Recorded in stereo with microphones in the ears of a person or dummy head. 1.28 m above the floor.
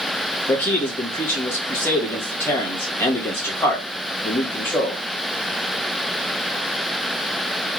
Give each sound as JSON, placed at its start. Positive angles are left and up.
{"t": 0.5, "sound": "a man speaking", "side_deg": 10, "distance_m": 1.4}